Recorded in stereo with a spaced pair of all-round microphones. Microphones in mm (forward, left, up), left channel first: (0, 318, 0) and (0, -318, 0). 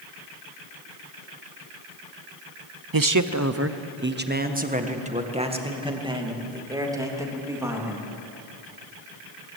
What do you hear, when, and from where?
2.9 s a man speaking: 35° right (ahead or behind), 0.8 m; by 8.1 s 5° right (ahead or behind), 4 m